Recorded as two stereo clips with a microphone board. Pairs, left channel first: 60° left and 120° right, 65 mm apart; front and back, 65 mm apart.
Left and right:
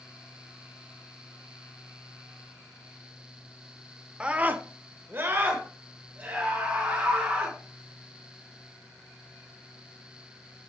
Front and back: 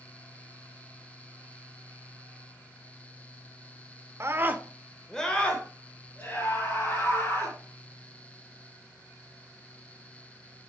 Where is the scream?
170° left, 0.9 m; by 7.6 s 55° right, 4 m.